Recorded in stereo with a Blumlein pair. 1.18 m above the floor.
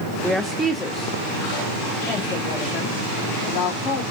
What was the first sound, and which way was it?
A woman speaking, straight ahead.